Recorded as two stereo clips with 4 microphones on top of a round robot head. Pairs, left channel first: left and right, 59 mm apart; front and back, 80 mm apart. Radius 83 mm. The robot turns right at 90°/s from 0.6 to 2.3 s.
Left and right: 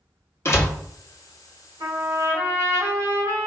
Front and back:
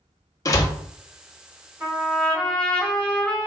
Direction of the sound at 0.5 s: 45° left.